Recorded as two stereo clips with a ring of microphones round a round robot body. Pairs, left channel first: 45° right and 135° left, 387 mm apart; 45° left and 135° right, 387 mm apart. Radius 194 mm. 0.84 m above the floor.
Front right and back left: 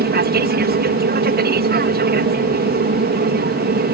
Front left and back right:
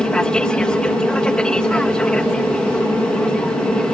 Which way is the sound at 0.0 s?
130° left.